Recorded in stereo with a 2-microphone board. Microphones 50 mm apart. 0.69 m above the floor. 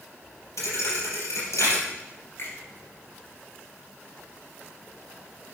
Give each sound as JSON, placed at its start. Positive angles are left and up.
{"t": 0.6, "sound": "a thud", "side_deg": 70, "distance_m": 4.0}
{"t": 2.4, "sound": "a finger snap", "side_deg": 60, "distance_m": 6.5}